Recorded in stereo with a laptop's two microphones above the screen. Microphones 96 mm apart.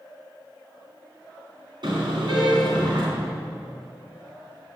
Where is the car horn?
60° right (ahead or behind), 4.5 m.